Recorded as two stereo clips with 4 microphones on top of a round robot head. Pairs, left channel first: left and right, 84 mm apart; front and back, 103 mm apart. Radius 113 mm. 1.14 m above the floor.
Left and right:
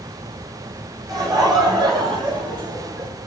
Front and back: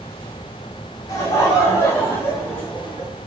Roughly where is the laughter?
Ahead right.